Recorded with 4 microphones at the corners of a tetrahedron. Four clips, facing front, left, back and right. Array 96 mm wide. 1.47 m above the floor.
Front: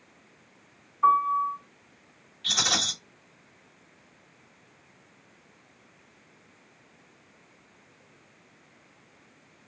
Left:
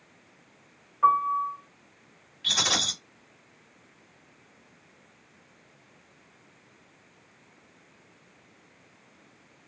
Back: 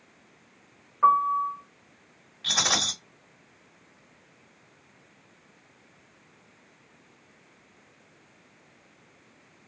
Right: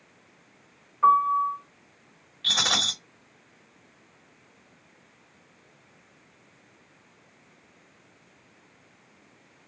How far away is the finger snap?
I don't hear a finger snap.